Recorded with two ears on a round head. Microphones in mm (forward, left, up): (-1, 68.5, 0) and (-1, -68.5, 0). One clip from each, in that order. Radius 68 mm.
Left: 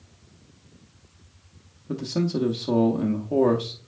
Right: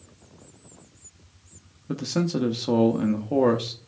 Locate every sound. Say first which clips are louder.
1.9 s a man speaking: even; 30° right (ahead or behind), 0.7 m